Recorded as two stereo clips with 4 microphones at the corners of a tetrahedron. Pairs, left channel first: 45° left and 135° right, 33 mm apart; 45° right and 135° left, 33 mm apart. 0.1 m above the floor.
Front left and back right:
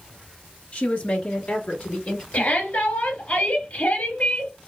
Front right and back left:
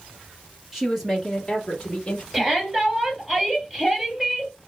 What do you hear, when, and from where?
0.7 s a woman speaking: 55° left, 1.9 m; by 2.2 s 5° left, 1.9 m
2.3 s a shout: 60° left, 2.5 m